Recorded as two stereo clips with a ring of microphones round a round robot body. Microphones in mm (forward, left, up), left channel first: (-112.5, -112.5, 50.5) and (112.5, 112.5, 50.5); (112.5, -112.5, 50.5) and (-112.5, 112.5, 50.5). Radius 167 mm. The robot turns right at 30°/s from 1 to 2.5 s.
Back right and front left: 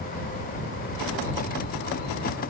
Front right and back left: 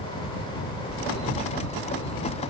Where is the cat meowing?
I don't hear a cat meowing.